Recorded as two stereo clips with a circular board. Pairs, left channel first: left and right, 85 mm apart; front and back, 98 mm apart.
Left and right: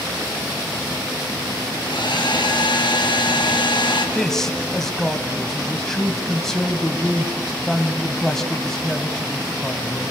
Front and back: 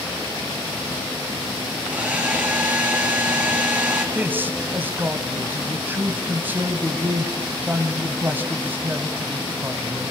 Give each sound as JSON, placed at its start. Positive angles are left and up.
{"t": 1.8, "sound": "a hair dryer", "azimuth_deg": 105, "distance_m": 4.5}
{"t": 4.2, "sound": "a man speaking", "azimuth_deg": 165, "distance_m": 1.4}